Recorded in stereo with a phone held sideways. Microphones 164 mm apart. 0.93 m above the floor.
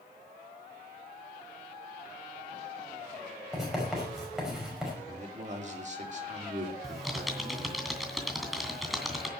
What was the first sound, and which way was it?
Writing, centre (ahead or behind).